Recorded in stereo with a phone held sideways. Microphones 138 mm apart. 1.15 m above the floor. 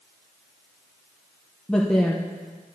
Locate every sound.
1.7 s a woman speaking: 10° left (ahead or behind), 0.7 m